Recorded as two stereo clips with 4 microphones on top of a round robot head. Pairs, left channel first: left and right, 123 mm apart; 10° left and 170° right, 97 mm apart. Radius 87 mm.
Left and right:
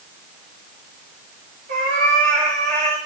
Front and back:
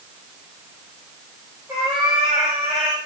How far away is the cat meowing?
About 9 m.